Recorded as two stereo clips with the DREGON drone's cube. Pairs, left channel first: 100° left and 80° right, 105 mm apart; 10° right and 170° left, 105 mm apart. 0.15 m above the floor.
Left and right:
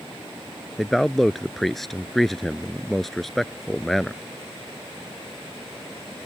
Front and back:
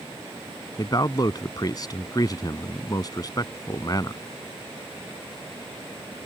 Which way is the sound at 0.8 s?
15° left.